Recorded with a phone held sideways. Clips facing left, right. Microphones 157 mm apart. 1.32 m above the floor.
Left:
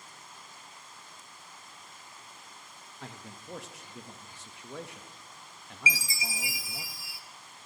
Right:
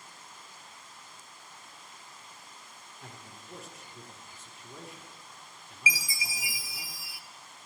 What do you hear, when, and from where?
3.0 s a man speaking: 75° left (ahead or behind), 1.3 m
5.9 s a chime: 25° left (ahead or behind), 0.6 m